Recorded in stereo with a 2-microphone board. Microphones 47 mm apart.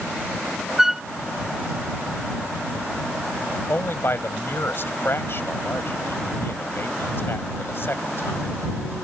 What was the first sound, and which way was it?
A flute, 10° right (ahead or behind).